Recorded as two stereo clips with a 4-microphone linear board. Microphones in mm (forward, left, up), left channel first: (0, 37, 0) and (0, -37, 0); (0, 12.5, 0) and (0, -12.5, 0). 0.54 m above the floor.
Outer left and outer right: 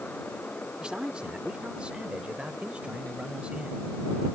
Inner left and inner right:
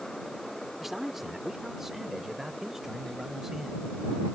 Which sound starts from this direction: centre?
A man speaking, at 0.8 s.